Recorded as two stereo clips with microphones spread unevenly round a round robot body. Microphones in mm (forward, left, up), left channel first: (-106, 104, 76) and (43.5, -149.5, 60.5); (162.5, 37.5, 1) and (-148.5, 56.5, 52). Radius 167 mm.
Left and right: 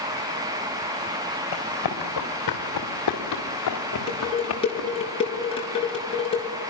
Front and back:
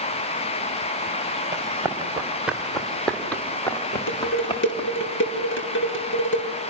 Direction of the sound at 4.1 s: 45° left.